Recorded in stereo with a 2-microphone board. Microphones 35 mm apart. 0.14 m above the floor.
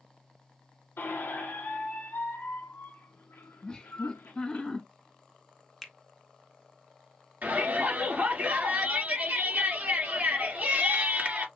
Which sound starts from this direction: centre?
A finger snap, at 5.8 s.